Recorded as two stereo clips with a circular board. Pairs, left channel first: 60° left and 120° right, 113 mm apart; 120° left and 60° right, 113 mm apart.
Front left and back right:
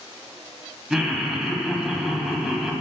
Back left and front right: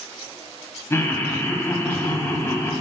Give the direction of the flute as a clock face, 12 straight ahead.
I don't hear a flute.